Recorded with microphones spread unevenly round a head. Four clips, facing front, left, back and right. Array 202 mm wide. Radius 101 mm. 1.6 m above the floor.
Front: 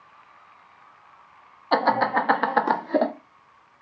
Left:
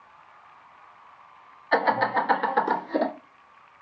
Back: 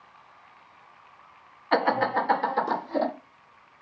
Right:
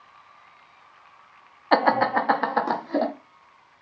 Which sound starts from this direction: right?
Laughter, at 1.7 s.